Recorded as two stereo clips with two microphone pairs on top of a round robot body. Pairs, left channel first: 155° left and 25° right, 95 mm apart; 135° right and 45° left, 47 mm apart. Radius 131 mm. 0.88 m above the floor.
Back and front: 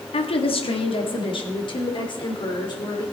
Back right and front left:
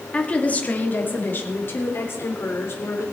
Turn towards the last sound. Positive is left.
turn(degrees=-165)